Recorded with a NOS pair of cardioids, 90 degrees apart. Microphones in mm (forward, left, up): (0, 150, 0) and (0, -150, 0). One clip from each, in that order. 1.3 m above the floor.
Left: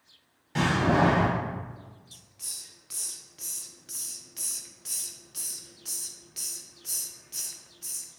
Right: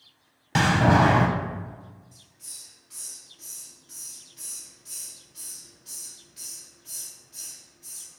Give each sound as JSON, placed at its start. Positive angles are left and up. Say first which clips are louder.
{"t": 0.6, "sound": "a door slam", "louder": "right 4 dB", "azimuth_deg": -55, "distance_m": 0.5}
{"t": 2.1, "sound": "a hiss", "louder": "left 6 dB", "azimuth_deg": 65, "distance_m": 0.5}